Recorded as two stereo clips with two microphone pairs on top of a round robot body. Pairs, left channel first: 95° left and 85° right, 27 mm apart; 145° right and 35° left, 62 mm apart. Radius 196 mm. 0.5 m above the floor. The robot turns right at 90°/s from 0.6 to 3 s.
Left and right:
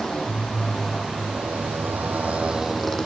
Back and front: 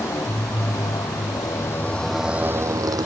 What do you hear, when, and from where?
0.0 s a motorcycle: 165° left; by 3.1 s 25° left